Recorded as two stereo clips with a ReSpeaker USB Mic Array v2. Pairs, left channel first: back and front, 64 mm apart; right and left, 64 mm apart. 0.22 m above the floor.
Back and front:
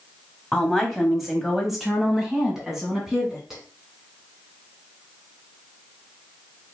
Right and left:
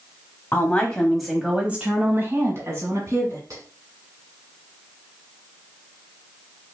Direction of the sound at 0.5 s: 90° right.